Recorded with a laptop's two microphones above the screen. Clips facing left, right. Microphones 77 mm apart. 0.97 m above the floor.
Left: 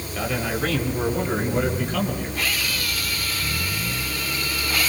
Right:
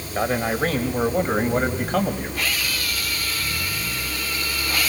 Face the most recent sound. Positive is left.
turn(degrees=-45)  # may be behind; listen again after turning